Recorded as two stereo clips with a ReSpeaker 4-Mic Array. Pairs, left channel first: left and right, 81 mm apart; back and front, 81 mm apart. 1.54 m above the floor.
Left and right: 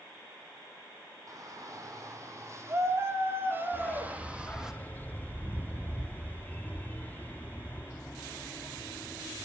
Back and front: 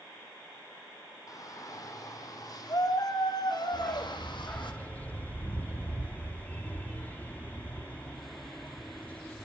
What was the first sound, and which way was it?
A shout, 135° right.